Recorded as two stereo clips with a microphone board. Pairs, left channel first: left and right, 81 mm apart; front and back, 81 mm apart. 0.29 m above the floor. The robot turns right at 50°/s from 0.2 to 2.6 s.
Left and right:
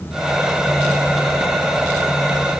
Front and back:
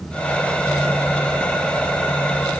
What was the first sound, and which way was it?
Only background noise.